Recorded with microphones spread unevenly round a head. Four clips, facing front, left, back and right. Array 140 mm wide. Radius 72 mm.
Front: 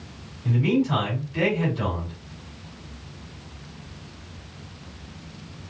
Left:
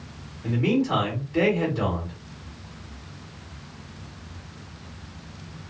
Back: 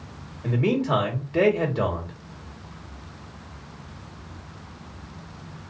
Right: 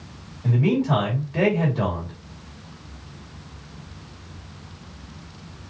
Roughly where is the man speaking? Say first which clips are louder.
Right 2 dB, front 1 dB; behind.